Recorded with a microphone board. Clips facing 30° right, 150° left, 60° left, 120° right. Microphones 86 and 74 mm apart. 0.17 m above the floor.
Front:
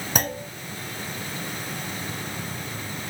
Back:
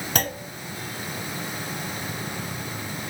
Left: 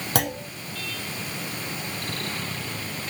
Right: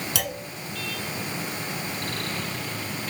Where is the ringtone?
No ringtone in this recording.